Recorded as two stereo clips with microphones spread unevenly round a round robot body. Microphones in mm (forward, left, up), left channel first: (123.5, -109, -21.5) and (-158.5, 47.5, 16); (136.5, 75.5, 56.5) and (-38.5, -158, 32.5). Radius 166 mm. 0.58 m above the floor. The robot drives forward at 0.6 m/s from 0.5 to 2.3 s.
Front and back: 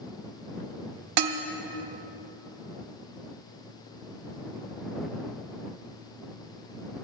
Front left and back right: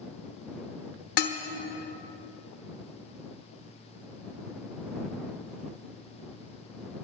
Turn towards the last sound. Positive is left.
turn(degrees=140)